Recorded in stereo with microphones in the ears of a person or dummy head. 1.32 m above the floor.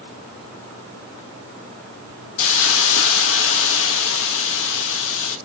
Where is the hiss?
75° left (ahead or behind), 1.5 m.